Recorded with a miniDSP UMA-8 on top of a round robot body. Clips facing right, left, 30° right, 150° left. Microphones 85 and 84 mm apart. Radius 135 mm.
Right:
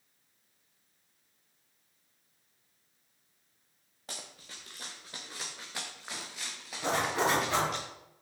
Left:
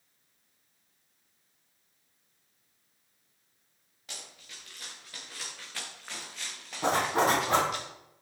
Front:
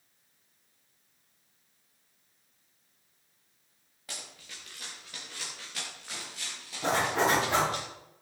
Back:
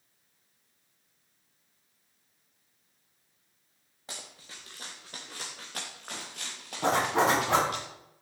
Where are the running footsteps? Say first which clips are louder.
Right 2 dB, even; 145° right, 3 m; by 7.8 s 175° left, 3.5 m.